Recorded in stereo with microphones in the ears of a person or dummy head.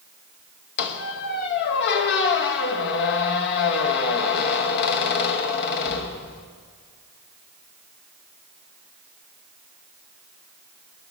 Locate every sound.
0.8 s a squeak: 55° left (ahead or behind), 1.1 m